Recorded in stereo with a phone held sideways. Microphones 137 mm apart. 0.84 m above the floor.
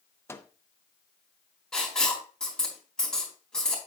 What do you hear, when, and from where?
0.3 s a microwave: 20° left (ahead or behind), 0.8 m
1.7 s writing: 5° left (ahead or behind), 3.5 m